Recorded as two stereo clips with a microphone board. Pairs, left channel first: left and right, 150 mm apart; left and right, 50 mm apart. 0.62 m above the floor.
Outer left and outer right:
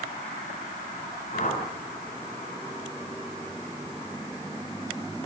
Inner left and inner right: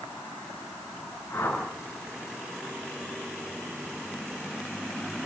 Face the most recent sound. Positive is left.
turn(degrees=55)  # may be behind; listen again after turning